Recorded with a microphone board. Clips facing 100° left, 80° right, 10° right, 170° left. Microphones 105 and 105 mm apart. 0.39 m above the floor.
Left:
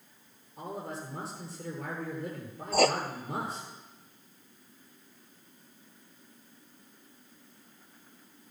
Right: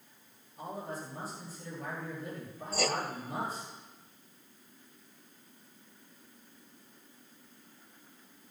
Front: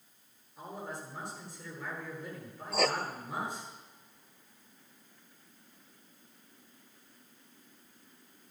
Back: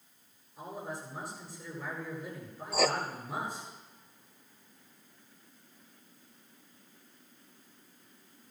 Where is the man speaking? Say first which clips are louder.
Left 1 dB, back 1 dB; 80° left, 9 m.